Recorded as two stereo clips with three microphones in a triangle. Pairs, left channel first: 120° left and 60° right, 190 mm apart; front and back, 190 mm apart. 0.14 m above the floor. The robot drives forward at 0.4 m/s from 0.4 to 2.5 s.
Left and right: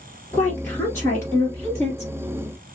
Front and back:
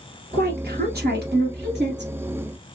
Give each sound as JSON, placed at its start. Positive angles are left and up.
{"t": 0.3, "sound": "a woman speaking", "azimuth_deg": -165, "distance_m": 1.8}